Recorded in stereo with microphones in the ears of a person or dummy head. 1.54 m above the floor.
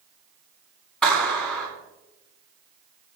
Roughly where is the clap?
Centre.